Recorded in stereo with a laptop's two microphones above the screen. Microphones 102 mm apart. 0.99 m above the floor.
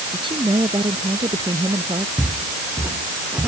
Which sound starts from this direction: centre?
Footsteps, at 2.2 s.